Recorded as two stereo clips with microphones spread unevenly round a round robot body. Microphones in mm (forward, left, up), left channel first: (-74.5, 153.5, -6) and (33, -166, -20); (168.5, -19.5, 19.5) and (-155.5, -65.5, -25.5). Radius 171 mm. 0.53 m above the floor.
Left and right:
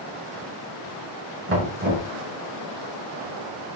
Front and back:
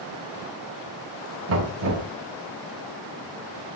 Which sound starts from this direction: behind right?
Knocking, at 1.5 s.